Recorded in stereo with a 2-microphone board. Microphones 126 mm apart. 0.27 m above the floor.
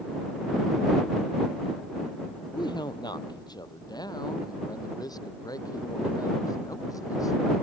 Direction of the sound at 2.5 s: 35° left (ahead or behind).